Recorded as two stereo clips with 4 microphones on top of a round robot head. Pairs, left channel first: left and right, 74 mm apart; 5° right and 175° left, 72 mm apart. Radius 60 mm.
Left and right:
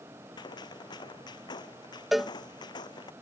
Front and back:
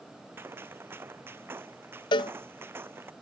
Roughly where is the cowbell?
Ahead.